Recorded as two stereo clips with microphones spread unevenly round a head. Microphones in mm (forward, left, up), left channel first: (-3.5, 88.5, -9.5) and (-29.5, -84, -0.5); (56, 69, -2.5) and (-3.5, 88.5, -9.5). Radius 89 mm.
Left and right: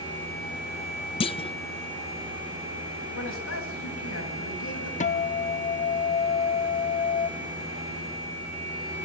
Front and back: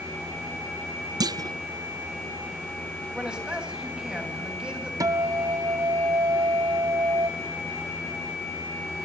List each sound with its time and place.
1.2 s a clunk: 140° left, 0.6 m
3.1 s a man speaking: 85° left, 9 m
5.0 s a guitar: 130° left, 1.1 m